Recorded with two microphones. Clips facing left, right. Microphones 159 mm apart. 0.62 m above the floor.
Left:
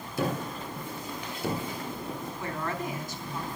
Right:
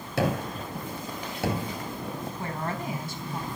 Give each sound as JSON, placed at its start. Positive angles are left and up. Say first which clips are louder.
{"t": 0.2, "sound": "a gunshot", "louder": "right 3 dB", "side_deg": -80, "distance_m": 4.0}
{"t": 2.4, "sound": "a woman speaking", "louder": "even", "side_deg": -30, "distance_m": 4.5}